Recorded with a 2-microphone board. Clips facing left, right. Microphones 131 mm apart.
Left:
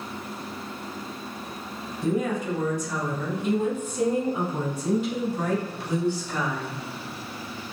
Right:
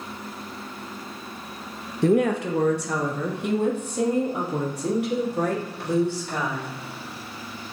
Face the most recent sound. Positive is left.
turn(degrees=-75)  # may be behind; listen again after turning